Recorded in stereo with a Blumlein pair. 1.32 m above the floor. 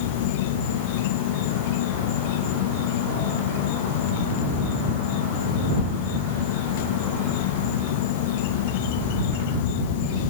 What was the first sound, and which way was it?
An insect, 50° left.